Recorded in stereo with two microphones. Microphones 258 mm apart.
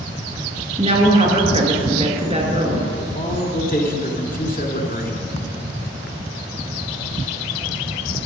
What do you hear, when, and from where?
0.8 s a woman speaking: 25° right (ahead or behind), 1.9 m
3.0 s a man speaking: 35° left (ahead or behind), 1.4 m